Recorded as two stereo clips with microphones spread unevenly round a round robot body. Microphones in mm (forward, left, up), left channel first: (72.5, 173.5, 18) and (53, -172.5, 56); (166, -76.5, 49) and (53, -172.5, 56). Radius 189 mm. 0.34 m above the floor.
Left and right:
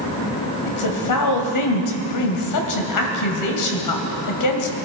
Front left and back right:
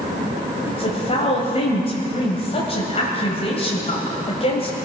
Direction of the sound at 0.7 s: 90° left.